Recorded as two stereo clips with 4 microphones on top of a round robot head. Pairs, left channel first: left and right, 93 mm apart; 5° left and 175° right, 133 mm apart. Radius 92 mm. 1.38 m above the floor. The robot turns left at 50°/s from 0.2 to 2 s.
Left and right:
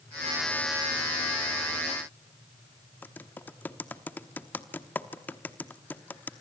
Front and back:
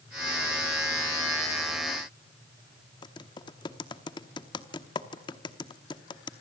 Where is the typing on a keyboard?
30° left, 1.0 m.